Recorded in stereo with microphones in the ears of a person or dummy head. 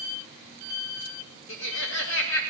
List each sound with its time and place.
1.5 s laughter: 75° left (ahead or behind), 1.9 m